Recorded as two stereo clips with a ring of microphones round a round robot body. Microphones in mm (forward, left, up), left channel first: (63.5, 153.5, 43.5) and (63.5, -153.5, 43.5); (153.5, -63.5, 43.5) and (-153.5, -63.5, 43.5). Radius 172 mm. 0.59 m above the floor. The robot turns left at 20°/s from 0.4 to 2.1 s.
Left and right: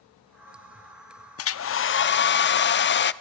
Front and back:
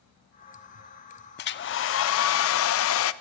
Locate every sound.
1.4 s a hair dryer: 55° left, 0.6 m; by 3.1 s 40° left, 0.6 m